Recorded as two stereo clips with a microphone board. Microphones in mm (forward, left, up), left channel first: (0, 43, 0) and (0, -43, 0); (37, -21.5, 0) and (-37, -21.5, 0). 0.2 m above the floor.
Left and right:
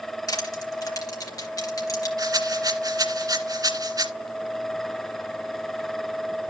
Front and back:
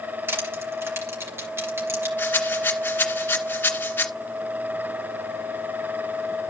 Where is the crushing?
125° left, 3.5 m.